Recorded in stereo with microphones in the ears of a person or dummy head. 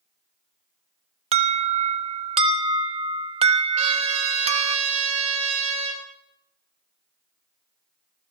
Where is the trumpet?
35° right (ahead or behind), 6 m.